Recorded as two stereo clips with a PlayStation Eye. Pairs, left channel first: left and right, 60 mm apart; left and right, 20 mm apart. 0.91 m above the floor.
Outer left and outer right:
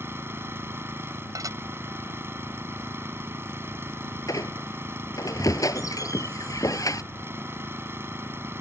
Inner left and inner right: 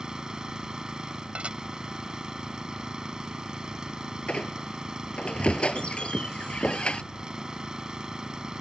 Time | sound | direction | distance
0.0 | an engine running | 45° right (ahead or behind) | ?
1.4 | dishes clattering | 85° right | ?
4.3 | a squeak | 70° left (ahead or behind) | ?